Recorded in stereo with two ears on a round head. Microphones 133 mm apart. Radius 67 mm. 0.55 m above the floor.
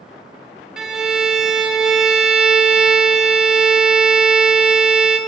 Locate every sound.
0.8 s a violin: 5° right (ahead or behind), 0.7 m